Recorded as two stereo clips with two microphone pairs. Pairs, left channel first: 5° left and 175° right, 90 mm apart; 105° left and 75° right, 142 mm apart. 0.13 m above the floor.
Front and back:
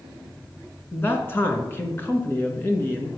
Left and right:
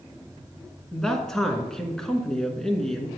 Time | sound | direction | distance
0.9 | a man speaking | 25° left | 1.4 m